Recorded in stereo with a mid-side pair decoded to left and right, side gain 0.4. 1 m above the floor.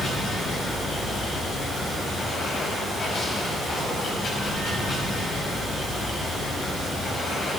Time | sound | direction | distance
0.0 | running water | 60° left | 5 m